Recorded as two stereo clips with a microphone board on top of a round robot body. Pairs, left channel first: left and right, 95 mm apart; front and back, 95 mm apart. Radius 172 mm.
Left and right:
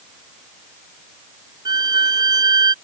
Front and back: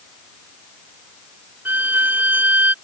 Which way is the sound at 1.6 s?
115° right.